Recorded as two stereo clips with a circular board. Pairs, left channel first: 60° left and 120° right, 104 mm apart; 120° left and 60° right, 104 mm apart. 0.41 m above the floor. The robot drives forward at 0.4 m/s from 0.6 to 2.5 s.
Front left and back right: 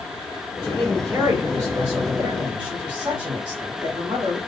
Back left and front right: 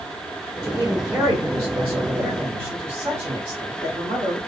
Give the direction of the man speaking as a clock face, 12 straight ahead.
2 o'clock.